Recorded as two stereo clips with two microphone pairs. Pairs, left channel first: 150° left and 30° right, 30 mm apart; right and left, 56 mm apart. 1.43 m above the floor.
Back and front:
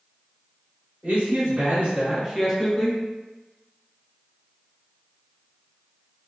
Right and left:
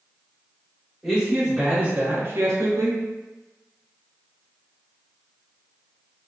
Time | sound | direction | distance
1.0 | a man speaking | straight ahead | 1.3 m